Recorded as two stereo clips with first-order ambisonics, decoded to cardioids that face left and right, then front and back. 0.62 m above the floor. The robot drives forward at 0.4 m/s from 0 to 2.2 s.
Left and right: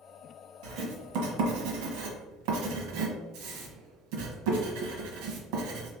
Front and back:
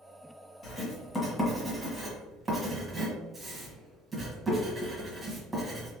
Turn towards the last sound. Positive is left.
turn(degrees=-100)